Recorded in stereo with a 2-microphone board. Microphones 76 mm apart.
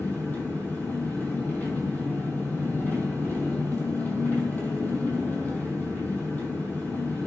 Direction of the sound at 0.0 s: 25° left (ahead or behind).